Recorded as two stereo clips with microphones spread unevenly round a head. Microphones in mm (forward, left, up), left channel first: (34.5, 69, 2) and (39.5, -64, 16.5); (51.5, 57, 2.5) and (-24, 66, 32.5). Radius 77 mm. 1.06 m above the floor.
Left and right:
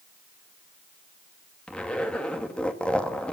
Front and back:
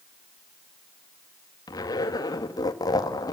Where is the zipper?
10° left, 2 m.